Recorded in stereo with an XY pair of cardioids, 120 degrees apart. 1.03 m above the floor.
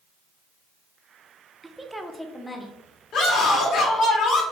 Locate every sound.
1.6 s a woman speaking: 20° right, 0.5 m; by 2.8 s 20° left, 1.0 m
3.1 s a scream: 60° left, 1.9 m